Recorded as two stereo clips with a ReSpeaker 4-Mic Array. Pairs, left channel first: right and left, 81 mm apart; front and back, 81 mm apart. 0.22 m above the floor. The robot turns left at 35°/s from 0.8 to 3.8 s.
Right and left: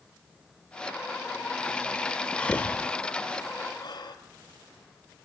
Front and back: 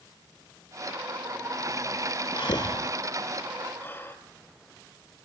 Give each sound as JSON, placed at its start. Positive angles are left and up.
{"t": 2.4, "sound": "breathing", "azimuth_deg": -15, "distance_m": 2.5}